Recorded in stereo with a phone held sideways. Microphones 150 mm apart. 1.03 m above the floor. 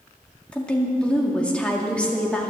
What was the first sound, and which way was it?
A woman speaking, 10° left (ahead or behind).